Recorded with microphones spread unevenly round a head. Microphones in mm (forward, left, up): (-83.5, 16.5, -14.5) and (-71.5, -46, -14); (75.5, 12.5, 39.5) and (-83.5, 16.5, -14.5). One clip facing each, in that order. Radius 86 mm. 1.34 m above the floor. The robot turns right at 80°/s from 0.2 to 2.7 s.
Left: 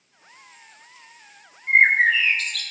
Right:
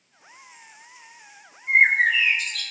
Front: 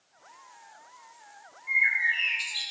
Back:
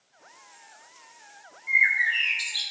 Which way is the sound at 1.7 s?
150° left.